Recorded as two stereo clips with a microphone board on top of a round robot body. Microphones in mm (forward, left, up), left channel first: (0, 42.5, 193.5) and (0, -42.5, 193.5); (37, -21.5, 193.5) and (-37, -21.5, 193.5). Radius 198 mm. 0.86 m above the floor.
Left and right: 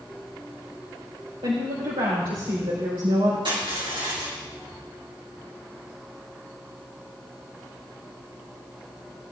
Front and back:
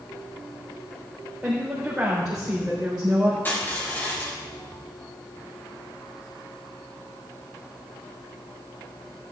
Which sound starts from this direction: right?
A woman speaking, at 1.4 s.